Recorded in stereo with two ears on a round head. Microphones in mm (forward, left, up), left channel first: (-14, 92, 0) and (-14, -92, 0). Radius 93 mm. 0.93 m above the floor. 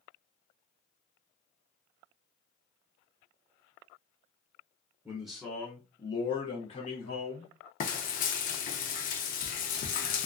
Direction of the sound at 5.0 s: 5° right (ahead or behind).